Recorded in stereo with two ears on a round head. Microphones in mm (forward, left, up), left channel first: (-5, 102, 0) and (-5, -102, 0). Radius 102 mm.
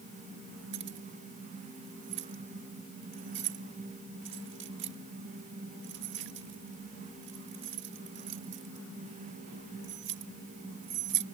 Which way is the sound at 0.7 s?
55° right (ahead or behind).